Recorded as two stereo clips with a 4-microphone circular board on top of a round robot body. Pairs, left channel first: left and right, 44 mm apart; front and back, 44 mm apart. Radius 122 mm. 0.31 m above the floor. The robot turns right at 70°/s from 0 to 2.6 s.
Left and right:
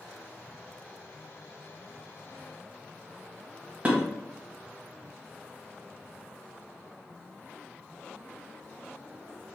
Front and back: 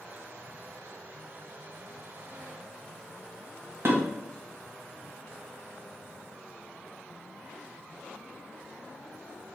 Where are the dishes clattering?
150° right, 1.4 m.